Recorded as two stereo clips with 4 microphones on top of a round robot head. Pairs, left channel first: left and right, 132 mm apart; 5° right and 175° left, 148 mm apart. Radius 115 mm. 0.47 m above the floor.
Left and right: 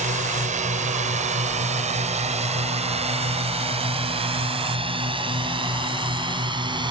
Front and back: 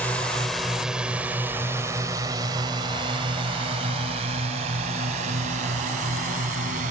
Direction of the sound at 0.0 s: 85° right.